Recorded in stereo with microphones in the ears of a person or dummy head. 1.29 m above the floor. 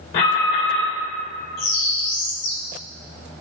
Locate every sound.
0.1 s an alarm: 60° left (ahead or behind), 2.5 m
1.6 s a bird: 60° left (ahead or behind), 2.5 m